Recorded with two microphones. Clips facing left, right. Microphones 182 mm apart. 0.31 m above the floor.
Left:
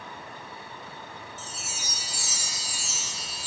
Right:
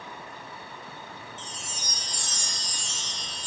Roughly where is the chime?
Centre.